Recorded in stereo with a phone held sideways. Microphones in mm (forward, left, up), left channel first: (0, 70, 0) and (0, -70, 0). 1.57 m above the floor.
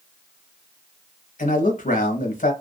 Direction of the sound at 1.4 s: 75° left (ahead or behind).